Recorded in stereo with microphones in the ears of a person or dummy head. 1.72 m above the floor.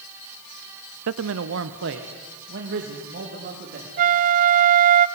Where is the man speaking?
80° right, 0.7 m; by 3.9 s 60° right (ahead or behind), 4 m.